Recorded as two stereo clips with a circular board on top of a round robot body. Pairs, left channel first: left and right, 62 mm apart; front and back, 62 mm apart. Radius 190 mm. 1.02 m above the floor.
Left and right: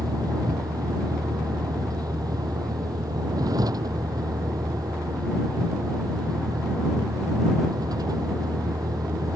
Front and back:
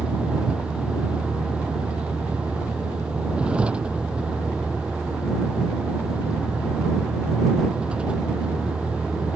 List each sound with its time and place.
0.0 s a vehicle: 110° right